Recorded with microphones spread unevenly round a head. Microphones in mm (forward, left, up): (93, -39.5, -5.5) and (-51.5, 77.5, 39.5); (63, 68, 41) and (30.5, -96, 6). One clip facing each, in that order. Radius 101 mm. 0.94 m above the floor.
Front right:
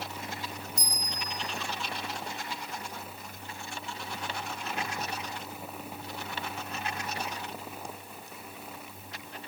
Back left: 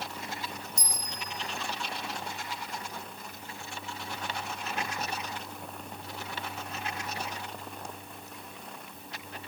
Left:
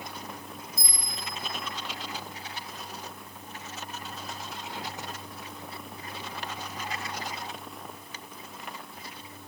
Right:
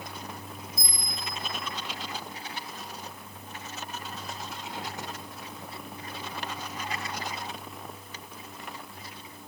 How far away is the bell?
About 4.5 m.